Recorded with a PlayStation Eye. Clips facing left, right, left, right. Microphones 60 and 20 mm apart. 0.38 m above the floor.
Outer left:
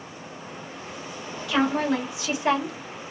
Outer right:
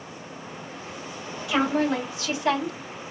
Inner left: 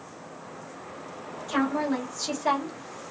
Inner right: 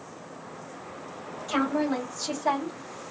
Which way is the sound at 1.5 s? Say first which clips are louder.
Even, even; 10° right (ahead or behind).